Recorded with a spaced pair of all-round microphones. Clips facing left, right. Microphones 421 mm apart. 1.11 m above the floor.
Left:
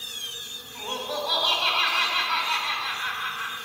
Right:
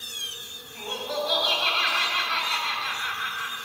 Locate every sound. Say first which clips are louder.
0.8 s laughter: right 1 dB; 40° right (ahead or behind), 4 m